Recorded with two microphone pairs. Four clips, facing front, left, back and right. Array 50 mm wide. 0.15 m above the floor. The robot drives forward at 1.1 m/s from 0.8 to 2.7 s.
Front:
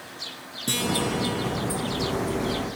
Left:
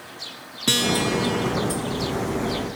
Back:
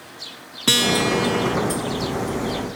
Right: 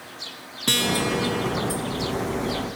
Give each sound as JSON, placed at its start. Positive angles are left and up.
{"t": 0.7, "sound": "a guitar", "azimuth_deg": 180, "distance_m": 0.9}